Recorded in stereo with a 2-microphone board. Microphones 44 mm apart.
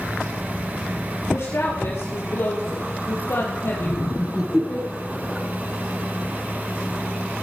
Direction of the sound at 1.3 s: 65° left (ahead or behind).